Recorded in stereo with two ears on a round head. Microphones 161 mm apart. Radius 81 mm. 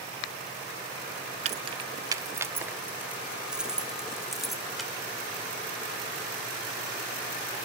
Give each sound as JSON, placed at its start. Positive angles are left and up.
{"t": 1.4, "sound": "keys jangling", "side_deg": -40, "distance_m": 0.5}